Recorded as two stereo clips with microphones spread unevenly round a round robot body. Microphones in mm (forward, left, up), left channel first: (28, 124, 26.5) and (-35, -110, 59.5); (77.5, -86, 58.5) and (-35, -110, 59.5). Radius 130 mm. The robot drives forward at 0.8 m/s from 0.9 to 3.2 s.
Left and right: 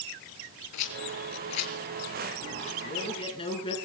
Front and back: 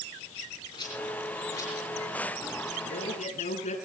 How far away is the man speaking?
About 5.5 m.